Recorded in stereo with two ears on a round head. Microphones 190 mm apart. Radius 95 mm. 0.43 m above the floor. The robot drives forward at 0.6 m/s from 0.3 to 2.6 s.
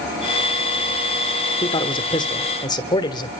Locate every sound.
1.6 s a man speaking: 25° left (ahead or behind), 1.3 m; by 3.3 s 20° left (ahead or behind), 1.4 m